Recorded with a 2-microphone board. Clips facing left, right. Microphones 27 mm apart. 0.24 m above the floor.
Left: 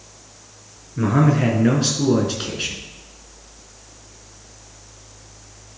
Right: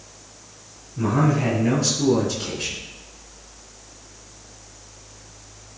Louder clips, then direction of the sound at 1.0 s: Left 3 dB; 55° left (ahead or behind).